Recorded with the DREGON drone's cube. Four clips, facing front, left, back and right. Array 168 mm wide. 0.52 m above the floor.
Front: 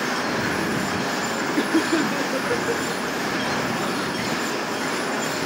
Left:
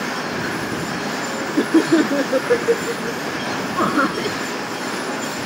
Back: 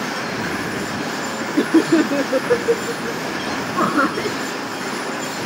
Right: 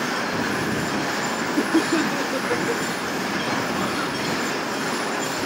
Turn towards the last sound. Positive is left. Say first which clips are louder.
# left 6 dB, back 7 dB
turn(degrees=140)